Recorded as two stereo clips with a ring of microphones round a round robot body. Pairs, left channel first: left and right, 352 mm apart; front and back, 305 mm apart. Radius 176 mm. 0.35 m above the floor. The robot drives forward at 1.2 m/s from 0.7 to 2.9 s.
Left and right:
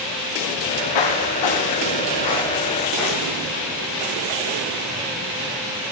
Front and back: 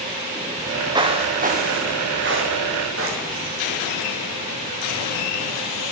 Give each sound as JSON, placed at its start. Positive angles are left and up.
{"t": 0.6, "sound": "footsteps", "azimuth_deg": 95, "distance_m": 2.5}